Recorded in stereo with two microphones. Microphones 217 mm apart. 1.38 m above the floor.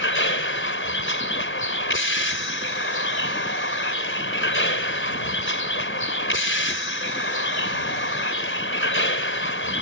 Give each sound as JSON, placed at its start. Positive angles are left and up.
{"t": 0.0, "sound": "a vehicle", "side_deg": 65}